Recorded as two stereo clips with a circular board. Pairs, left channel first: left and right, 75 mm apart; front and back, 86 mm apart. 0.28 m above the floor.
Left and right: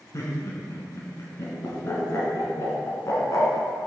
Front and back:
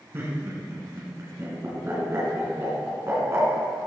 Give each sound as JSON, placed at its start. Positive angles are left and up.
{"t": 0.1, "sound": "laughter", "azimuth_deg": 130, "distance_m": 3.0}